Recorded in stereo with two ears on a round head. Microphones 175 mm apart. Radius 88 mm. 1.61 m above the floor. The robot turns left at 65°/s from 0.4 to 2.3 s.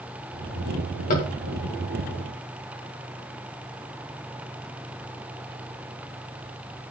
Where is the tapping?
45° left (ahead or behind), 2.5 m; by 1.3 s 30° left (ahead or behind), 2.5 m.